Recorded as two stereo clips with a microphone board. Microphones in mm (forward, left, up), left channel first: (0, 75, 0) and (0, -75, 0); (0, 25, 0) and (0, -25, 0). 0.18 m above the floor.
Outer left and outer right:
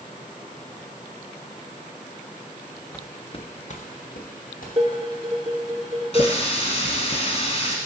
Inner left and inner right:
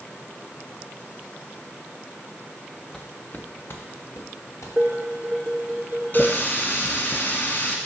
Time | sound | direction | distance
2.9 | footsteps | 10° left (ahead or behind) | 0.8 m
4.8 | dishes clattering | 35° right (ahead or behind) | 2 m
6.1 | a running tap | 45° left (ahead or behind) | 1.2 m